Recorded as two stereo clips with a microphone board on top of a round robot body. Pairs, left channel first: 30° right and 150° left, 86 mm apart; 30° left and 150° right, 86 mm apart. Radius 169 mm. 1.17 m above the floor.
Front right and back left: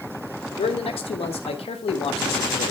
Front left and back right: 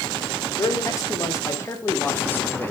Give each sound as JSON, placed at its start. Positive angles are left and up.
{"t": 0.6, "sound": "a man speaking", "azimuth_deg": -25, "distance_m": 2.5}